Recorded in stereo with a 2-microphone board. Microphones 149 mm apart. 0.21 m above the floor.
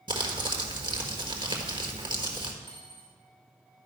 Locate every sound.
0.1 s crumpling: 30° right (ahead or behind), 1.2 m
2.6 s a dropped coin: 35° left (ahead or behind), 4 m